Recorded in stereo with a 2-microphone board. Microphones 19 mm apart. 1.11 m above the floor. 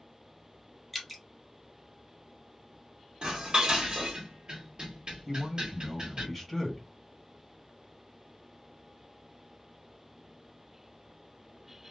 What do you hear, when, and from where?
0.9 s dripping: 5° left (ahead or behind), 0.7 m
3.2 s dishes clattering: 45° right (ahead or behind), 1.2 m
5.2 s a man speaking: 5° left (ahead or behind), 1.4 m